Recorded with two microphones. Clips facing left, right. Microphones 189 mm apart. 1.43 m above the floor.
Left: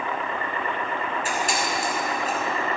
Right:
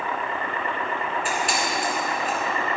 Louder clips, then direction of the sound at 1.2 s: Even; 40° left (ahead or behind).